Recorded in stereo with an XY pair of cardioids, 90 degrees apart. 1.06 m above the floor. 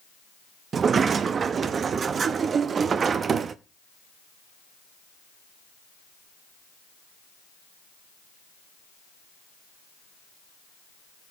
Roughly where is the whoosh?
I don't hear a whoosh.